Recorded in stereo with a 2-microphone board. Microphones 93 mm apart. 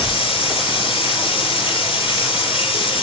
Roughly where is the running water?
Left.